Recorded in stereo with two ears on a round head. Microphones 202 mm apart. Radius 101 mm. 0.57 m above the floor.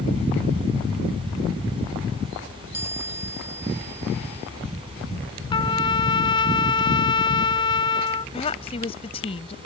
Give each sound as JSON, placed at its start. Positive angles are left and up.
{"t": 2.7, "sound": "a chime", "side_deg": -10}
{"t": 5.5, "sound": "a trumpet", "side_deg": 20}
{"t": 8.3, "sound": "a woman speaking", "side_deg": 25}